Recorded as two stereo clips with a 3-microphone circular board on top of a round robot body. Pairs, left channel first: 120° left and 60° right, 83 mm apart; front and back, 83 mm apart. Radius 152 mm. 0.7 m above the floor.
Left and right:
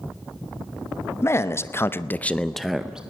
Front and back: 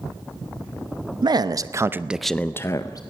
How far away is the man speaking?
About 1.2 m.